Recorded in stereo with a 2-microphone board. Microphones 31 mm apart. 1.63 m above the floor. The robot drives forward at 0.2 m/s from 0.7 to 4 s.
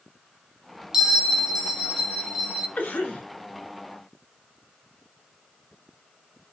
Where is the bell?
15° right (ahead or behind), 0.8 m; by 2.7 s 10° right (ahead or behind), 1.1 m.